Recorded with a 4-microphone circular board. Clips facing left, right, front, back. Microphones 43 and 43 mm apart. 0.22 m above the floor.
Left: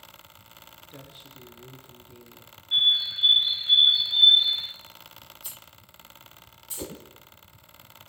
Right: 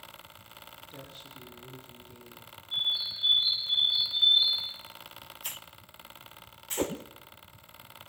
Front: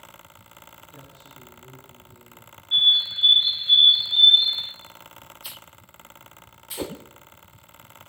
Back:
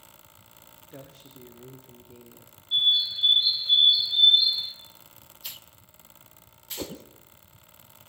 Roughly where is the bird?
Ahead left.